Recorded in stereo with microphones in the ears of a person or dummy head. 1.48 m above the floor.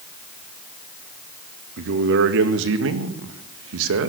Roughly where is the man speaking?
Right.